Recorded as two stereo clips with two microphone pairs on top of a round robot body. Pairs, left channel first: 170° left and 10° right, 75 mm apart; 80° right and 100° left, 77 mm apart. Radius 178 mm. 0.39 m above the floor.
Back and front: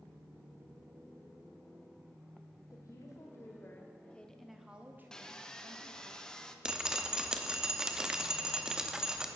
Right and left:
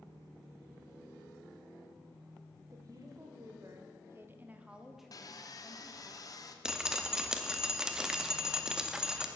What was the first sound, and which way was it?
A woman speaking, 130° left.